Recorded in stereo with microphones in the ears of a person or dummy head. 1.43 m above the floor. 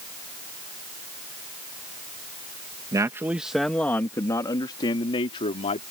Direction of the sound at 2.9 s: 20° right (ahead or behind).